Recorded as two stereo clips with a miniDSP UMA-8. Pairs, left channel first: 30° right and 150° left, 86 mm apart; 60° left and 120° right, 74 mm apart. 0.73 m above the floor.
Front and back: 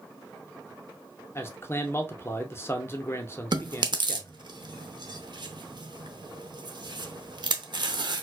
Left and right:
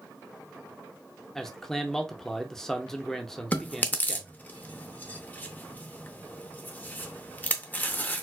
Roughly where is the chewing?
Behind left.